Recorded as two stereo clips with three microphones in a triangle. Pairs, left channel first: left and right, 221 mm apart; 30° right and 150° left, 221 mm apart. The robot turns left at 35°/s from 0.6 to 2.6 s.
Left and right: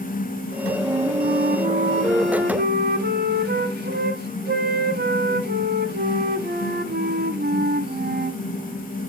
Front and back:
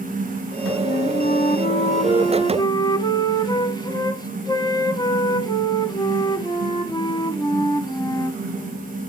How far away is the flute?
About 0.7 m.